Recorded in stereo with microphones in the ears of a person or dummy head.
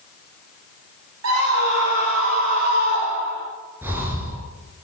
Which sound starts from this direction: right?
A scream, at 1.2 s.